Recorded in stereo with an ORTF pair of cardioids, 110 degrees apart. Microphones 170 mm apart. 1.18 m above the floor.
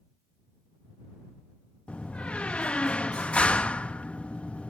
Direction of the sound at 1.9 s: 5° left.